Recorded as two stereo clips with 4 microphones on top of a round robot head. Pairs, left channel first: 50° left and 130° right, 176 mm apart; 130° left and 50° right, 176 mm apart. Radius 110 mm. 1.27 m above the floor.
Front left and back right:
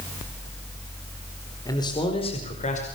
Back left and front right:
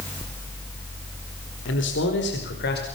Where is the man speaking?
120° left, 4.5 m; by 2.9 s 100° left, 5 m.